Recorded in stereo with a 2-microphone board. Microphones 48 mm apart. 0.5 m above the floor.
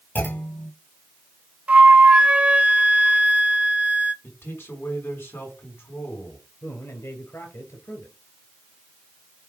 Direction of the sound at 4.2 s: 45° left (ahead or behind).